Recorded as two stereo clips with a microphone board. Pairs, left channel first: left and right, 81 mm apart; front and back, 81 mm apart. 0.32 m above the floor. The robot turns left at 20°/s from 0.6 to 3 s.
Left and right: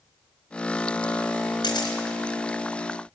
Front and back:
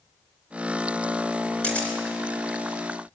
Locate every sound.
1.6 s a camera shutter: 75° left, 2.5 m; by 2.0 s 70° left, 2.5 m